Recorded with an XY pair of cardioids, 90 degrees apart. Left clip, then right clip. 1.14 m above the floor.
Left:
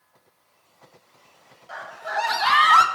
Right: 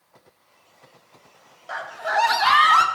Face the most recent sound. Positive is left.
turn(degrees=15)